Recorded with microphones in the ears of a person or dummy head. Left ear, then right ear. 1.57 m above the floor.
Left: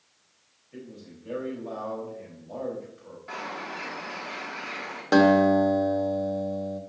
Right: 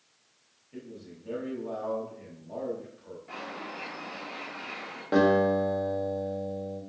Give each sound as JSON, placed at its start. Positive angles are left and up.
{"t": 0.7, "sound": "a man speaking", "side_deg": 10, "distance_m": 3.5}
{"t": 3.3, "sound": "a bird", "side_deg": 40, "distance_m": 1.8}
{"t": 5.1, "sound": "a guitar", "side_deg": 75, "distance_m": 1.4}